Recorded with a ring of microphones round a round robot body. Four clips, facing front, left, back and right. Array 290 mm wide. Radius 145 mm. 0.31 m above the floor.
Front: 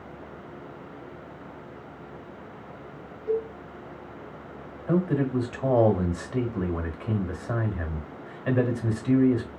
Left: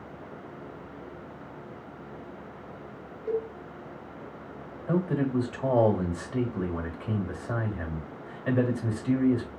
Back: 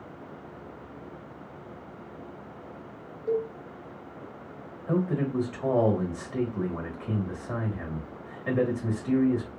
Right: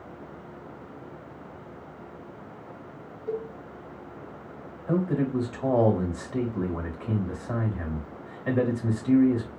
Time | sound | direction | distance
3.3 | a cowbell | 130° left | 1.8 m
4.9 | a man speaking | 10° left | 1.0 m